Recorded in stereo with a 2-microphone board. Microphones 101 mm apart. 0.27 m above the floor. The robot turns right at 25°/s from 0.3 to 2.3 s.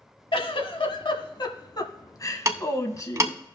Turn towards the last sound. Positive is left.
turn(degrees=-30)  # may be behind; listen again after turning